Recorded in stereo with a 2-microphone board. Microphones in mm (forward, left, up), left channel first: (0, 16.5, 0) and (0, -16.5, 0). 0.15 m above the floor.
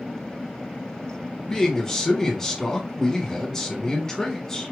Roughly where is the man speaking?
Centre.